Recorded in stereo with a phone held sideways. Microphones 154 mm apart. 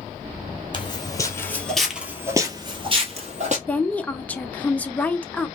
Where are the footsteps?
30° left (ahead or behind), 1.2 m; by 3.6 s 50° right (ahead or behind), 1.4 m.